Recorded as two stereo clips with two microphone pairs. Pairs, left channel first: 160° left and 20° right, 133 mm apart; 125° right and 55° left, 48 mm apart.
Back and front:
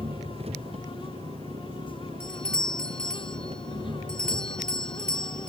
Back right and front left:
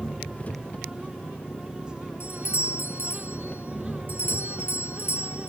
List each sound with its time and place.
0.0 s an engine running: 60° right
2.2 s a doorbell: 115° right